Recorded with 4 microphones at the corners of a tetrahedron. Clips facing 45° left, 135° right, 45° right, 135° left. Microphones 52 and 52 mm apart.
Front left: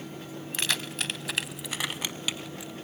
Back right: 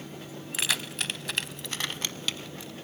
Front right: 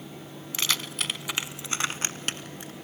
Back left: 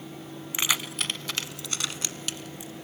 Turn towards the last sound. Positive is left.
turn(degrees=-30)